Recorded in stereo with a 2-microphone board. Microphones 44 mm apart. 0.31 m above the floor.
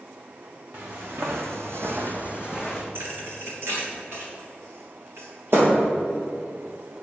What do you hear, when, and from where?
0.7 s footsteps: 60° right (ahead or behind), 1.7 m; by 2.9 s 10° right (ahead or behind), 1.5 m
3.0 s a thud: 60° right (ahead or behind), 3 m